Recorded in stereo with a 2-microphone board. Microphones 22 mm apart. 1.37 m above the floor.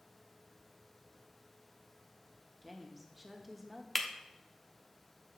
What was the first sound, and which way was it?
A woman speaking, 5° right (ahead or behind).